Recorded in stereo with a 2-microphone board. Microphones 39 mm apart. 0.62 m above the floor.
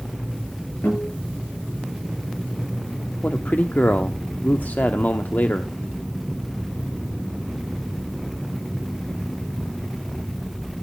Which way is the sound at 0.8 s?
75° left (ahead or behind).